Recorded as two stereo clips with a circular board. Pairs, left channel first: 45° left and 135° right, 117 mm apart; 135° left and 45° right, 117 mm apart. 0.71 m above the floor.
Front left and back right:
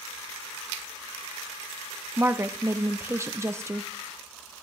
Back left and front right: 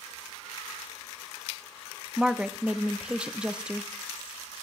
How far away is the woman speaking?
About 0.6 m.